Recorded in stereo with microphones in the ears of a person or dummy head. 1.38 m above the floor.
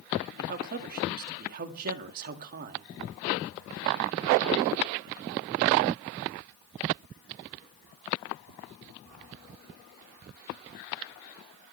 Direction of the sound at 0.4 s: 50° right (ahead or behind).